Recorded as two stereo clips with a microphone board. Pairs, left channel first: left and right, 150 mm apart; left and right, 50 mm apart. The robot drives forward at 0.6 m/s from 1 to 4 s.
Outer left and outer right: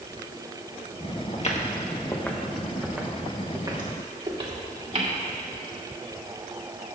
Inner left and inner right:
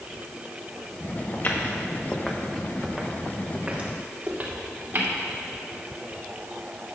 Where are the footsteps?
50° left (ahead or behind), 1.6 m; by 5.1 s 50° right (ahead or behind), 3.5 m.